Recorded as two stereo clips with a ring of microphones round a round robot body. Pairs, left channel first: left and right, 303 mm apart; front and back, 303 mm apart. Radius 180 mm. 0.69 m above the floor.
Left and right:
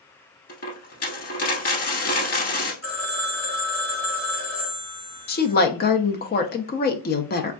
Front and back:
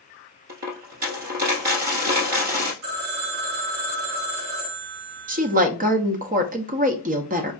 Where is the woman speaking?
130° left, 0.6 m.